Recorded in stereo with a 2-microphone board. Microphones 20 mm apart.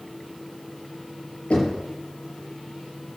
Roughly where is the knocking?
Left.